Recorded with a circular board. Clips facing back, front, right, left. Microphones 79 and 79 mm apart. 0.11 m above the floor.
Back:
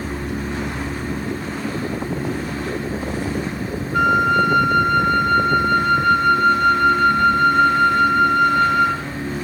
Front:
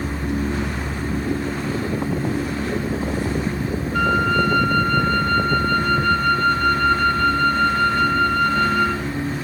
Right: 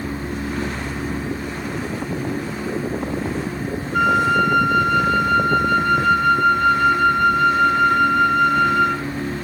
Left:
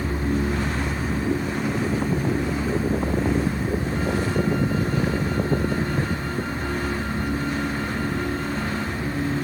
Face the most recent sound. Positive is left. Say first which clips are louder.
# back 3 dB, right 12 dB
turn(degrees=-105)